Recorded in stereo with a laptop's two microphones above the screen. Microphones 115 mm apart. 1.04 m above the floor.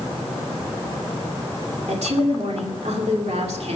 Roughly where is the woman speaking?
Right.